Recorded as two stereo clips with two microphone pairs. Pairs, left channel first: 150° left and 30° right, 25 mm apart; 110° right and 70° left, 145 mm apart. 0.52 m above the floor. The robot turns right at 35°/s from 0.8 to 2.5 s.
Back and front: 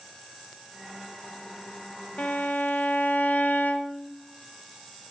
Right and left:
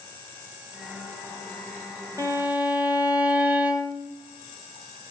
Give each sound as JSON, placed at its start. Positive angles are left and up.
{"t": 2.2, "sound": "a violin", "azimuth_deg": 135, "distance_m": 0.8}